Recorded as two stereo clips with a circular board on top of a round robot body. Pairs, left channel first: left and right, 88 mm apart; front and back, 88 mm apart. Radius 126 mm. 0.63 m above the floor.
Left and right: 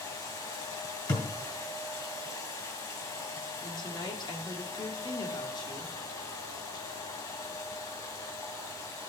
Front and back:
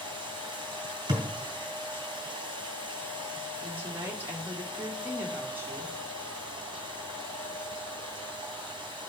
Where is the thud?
135° left, 1.9 m.